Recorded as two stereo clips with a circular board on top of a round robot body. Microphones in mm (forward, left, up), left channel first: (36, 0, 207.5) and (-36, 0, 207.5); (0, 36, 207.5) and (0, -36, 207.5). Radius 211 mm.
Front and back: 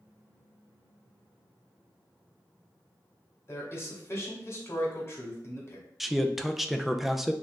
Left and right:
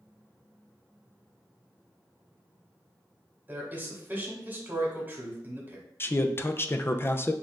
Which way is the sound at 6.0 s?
95° left.